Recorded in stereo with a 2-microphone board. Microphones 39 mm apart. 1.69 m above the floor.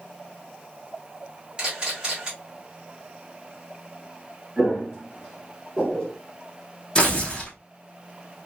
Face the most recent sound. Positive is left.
turn(degrees=25)  # may be behind; listen again after turning